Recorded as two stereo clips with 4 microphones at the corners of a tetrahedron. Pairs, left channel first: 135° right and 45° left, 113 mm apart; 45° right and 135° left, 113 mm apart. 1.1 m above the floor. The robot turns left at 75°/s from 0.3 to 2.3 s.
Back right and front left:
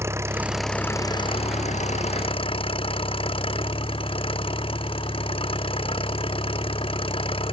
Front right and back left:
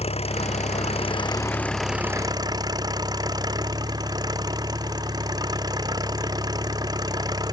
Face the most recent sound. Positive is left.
turn(degrees=-170)